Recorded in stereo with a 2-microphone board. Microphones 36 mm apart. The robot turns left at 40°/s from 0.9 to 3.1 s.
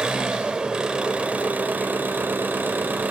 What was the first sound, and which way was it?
An engine running, 30° right.